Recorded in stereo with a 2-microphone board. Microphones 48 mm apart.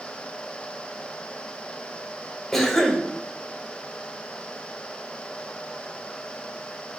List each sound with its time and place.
2.5 s a cough: 5° left (ahead or behind), 0.9 m